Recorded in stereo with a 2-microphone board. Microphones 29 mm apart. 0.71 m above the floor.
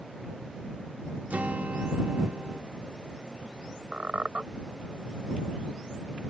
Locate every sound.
1.3 s a guitar: 65° right (ahead or behind)
3.9 s a squeak: 50° right (ahead or behind)